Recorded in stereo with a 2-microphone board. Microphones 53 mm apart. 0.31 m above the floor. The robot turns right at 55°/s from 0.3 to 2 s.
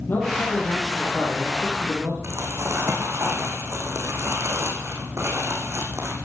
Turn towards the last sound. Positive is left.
turn(degrees=-55)  # may be behind; listen again after turning